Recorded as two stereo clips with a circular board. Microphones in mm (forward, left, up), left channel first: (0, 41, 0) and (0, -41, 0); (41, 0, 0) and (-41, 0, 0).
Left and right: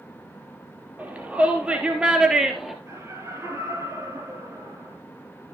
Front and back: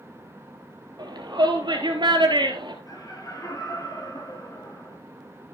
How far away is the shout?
About 3.5 m.